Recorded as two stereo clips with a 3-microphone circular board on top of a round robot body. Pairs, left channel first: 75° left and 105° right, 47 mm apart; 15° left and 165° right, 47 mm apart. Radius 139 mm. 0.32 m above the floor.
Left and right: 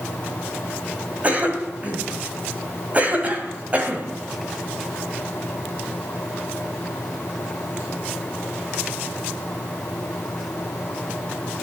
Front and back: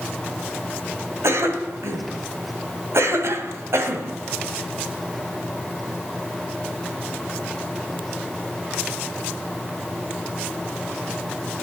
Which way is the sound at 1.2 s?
160° right.